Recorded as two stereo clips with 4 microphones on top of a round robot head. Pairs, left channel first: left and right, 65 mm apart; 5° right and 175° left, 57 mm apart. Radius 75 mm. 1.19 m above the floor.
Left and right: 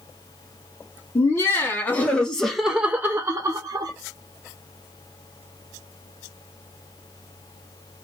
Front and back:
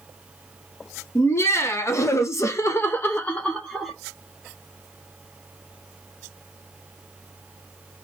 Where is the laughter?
40° left, 1.2 m; by 3.9 s 85° right, 0.8 m.